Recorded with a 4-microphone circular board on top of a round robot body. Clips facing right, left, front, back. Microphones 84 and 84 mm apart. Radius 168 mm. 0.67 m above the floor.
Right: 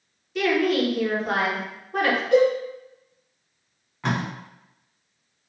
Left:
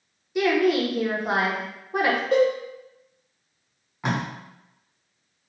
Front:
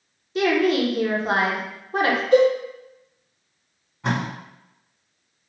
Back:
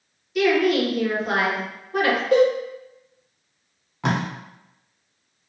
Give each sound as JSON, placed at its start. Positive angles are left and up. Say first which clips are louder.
{"t": 0.3, "sound": "a woman speaking", "louder": "left 1 dB, back 1 dB", "azimuth_deg": 30, "distance_m": 0.9}
{"t": 2.3, "sound": "a cowbell", "louder": "right 3 dB, front 1 dB", "azimuth_deg": 145, "distance_m": 0.6}
{"t": 4.0, "sound": "tape being pulled", "louder": "even, back 1 dB", "azimuth_deg": 165, "distance_m": 0.7}